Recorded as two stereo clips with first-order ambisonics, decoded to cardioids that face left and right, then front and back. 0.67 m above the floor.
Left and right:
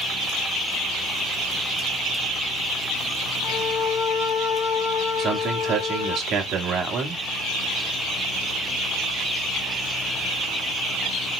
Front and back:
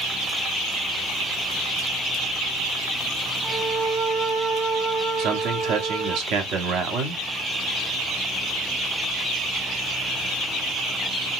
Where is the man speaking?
150° right, 1.0 m.